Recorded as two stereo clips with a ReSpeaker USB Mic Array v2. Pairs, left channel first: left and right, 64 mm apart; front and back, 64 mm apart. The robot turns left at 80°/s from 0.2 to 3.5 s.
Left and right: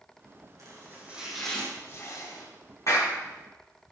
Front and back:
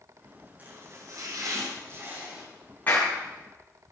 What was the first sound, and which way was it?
Chopping, 115° right.